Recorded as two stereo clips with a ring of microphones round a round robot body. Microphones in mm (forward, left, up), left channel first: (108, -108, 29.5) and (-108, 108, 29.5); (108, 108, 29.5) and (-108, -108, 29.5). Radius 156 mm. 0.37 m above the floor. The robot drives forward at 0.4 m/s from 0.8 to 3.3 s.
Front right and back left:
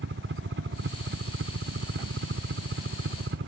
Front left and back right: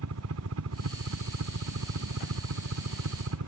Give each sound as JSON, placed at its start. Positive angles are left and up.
{"t": 0.0, "sound": "a helicopter", "azimuth_deg": -175}